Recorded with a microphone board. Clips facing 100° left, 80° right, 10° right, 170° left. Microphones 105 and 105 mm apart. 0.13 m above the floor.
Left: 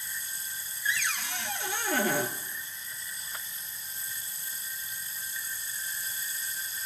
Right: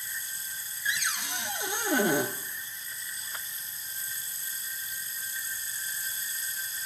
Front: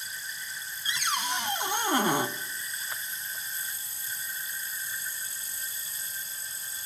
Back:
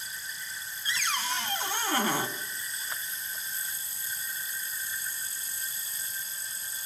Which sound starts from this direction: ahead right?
A cupboard door, at 0.8 s.